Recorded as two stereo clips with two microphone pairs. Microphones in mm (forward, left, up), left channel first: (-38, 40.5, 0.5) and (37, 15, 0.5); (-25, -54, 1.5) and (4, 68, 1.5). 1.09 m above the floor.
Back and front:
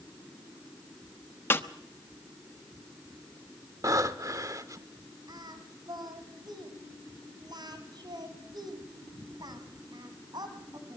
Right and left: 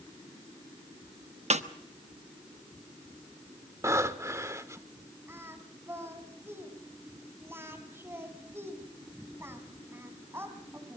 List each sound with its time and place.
1.5 s a snare drum: 100° left, 1.0 m
3.8 s breathing: 15° left, 1.0 m
5.3 s singing: 5° left, 2.5 m